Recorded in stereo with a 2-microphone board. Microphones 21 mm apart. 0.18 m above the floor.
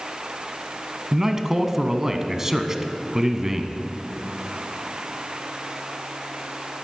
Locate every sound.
1.1 s a man speaking: 20° right (ahead or behind), 1.2 m